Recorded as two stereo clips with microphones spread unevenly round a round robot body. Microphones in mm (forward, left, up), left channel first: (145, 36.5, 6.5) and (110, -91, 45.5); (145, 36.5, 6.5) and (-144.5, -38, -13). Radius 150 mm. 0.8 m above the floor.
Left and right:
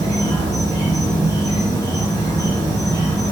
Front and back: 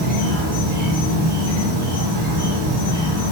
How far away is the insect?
About 1.9 m.